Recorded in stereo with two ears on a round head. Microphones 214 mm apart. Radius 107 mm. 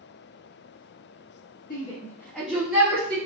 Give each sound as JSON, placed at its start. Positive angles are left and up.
{"t": 1.7, "sound": "a shout", "side_deg": 35, "distance_m": 1.0}